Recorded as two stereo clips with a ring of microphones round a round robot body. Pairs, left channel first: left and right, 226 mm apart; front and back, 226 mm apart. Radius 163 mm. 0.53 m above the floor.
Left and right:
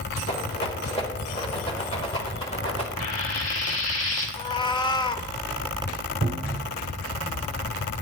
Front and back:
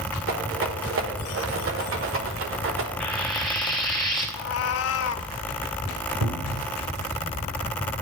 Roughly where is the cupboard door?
Behind right.